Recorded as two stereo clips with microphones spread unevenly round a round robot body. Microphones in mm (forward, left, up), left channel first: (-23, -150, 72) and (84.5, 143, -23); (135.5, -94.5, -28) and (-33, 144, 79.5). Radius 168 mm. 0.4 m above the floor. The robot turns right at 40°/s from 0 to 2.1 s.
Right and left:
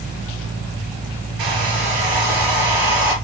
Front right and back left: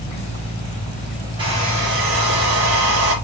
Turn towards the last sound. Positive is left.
turn(degrees=75)